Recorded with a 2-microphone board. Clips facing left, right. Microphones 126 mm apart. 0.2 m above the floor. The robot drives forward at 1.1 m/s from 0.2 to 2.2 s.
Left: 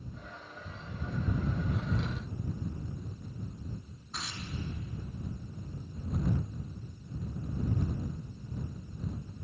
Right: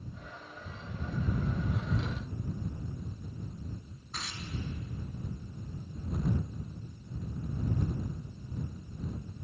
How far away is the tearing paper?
About 0.9 m.